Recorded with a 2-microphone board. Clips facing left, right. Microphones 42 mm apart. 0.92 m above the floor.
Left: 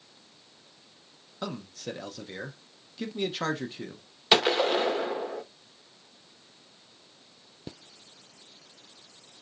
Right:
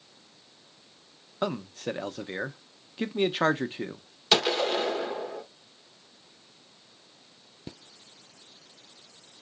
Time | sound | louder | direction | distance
1.4 | a man speaking | right 6 dB | 30° right (ahead or behind) | 0.6 m
4.3 | a gunshot | left 2 dB | 20° left (ahead or behind) | 0.8 m